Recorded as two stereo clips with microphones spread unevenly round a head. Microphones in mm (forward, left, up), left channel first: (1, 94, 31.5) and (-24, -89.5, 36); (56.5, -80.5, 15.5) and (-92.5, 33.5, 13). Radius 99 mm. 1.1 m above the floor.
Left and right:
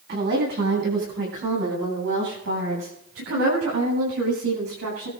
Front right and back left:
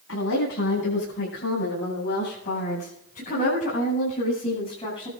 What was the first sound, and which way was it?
A woman speaking, 60° right.